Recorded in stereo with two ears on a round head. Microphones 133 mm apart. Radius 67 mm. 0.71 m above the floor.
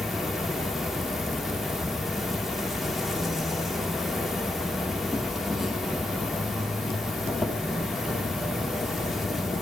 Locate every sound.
0.0 s an insect: centre (ahead or behind), 1.5 m